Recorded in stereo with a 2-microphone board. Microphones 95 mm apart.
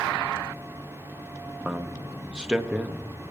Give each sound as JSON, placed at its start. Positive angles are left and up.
{"t": 1.6, "sound": "a man speaking", "side_deg": -10, "distance_m": 0.6}